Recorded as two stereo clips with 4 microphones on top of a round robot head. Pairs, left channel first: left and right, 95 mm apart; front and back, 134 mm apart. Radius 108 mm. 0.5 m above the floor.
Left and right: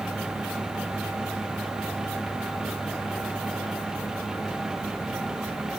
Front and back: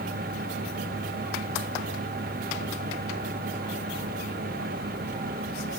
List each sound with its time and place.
Only background noise.